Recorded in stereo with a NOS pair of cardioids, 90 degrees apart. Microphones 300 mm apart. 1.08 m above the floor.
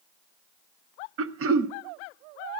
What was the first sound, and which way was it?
Throat clearing, 45° right.